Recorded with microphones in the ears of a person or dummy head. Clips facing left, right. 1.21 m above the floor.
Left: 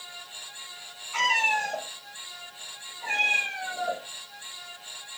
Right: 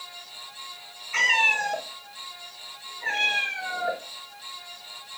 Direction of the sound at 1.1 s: 20° right (ahead or behind).